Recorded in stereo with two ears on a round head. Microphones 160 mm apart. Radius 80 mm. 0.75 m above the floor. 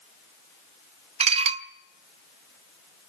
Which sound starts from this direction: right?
Dishes clattering, at 1.2 s.